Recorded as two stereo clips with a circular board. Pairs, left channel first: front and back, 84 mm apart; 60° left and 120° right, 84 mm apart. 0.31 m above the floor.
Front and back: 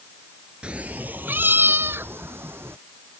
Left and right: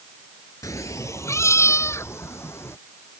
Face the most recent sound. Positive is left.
turn(degrees=120)